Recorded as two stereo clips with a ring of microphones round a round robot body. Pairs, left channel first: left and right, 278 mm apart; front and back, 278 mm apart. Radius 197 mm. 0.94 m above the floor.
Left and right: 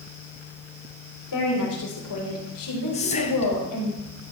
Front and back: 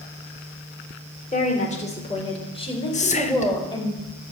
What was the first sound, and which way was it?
A woman speaking, 60° left.